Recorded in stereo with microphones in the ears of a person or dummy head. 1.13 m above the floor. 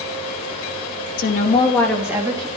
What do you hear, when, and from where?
1.2 s a woman speaking: 55° left (ahead or behind), 1.3 m; by 2.5 s 25° right (ahead or behind), 1.8 m